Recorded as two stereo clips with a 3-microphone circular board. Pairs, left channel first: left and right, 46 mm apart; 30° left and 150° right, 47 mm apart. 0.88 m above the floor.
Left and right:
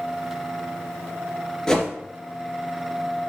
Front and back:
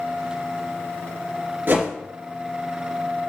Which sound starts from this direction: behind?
A whoosh, at 1.7 s.